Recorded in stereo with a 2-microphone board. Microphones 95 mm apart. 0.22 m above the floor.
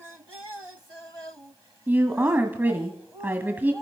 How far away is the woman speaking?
About 1.5 m.